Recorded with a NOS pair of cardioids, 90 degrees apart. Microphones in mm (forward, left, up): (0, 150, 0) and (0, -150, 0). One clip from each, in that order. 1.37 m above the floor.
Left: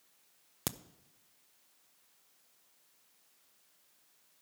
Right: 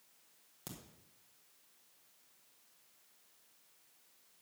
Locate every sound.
0.7 s a crack: 70° left, 0.6 m